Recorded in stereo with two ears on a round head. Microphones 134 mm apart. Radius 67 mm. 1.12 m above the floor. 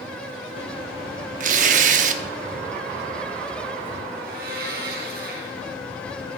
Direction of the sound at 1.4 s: 55° right (ahead or behind).